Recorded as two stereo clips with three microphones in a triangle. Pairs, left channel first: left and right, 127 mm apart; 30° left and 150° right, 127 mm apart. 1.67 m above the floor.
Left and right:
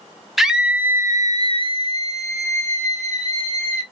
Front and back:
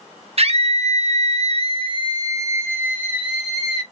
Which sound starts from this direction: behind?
A scream, at 0.4 s.